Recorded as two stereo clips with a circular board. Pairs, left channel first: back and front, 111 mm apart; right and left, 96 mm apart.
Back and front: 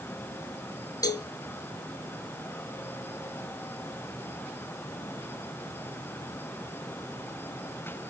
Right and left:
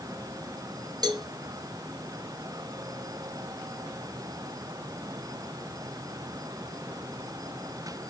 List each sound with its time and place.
1.0 s a cowbell: 130° left, 1.2 m